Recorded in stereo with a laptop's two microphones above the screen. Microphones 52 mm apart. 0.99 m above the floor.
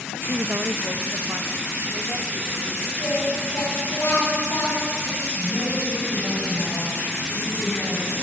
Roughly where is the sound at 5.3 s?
Centre.